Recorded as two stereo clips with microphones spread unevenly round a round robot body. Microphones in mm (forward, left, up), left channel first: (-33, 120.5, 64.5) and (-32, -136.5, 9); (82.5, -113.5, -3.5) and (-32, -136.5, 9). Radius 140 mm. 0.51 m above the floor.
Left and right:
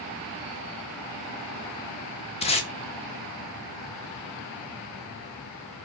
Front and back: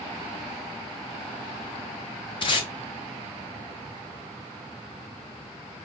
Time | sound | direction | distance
2.4 | tape being pulled | 20° left | 0.6 m